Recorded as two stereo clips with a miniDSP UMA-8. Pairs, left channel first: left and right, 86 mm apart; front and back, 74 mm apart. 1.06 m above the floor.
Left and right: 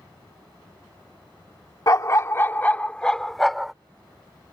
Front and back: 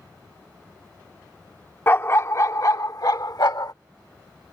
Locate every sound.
1.9 s a dog barking: 50° left; by 3.7 s 5° right